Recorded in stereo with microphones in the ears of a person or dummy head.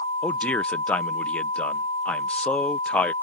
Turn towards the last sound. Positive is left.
turn(degrees=10)  # may be behind; listen again after turning